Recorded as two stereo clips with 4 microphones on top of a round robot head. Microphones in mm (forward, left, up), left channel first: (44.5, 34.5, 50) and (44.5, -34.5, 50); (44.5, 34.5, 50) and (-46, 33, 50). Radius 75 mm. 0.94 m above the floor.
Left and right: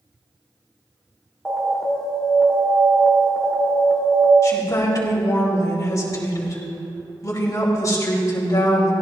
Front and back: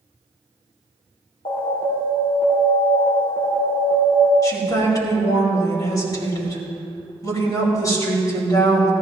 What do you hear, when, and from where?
1.4 s an alarm: straight ahead, 4 m
4.4 s a woman speaking: 50° left, 5 m